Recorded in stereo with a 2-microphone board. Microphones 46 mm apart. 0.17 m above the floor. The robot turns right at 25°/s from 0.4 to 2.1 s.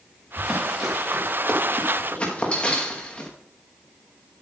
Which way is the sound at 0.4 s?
5° right (ahead or behind).